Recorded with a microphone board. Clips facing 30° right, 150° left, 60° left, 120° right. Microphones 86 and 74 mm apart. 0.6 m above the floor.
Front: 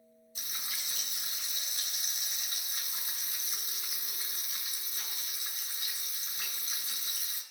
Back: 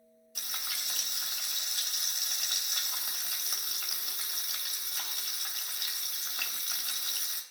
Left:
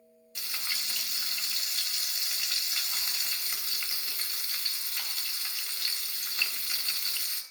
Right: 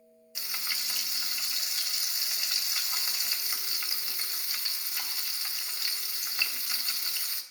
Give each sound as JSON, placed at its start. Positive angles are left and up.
{"t": 0.3, "sound": "frying", "azimuth_deg": 155, "distance_m": 3.5}